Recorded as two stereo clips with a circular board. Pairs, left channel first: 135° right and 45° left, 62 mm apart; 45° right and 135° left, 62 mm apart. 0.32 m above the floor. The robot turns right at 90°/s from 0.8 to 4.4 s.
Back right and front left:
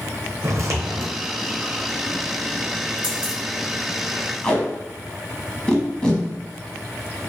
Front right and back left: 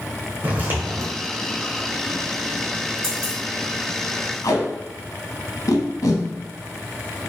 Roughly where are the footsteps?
Left.